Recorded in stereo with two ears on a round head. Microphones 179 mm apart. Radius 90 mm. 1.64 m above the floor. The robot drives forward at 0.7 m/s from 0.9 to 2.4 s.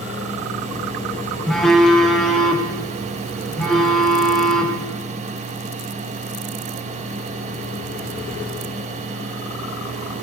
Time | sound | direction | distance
1.5 | a phone buzzing | centre (ahead or behind) | 1.0 m